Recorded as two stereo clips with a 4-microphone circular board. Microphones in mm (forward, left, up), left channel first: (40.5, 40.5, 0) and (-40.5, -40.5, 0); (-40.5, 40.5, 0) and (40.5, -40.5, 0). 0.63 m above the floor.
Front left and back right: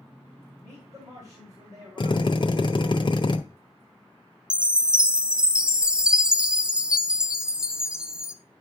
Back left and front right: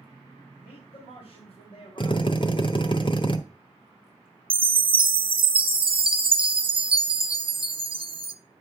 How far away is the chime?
About 0.5 m.